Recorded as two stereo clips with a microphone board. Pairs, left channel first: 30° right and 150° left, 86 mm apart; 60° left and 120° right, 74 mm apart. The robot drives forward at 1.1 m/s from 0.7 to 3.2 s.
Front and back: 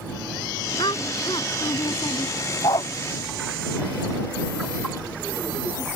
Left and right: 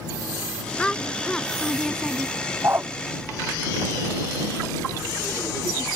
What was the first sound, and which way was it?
A woman speaking, 15° right.